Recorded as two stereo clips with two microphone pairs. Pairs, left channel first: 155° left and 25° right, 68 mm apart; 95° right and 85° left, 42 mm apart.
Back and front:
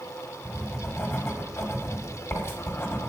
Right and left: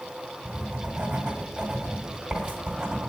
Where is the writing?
140° left, 1.5 m.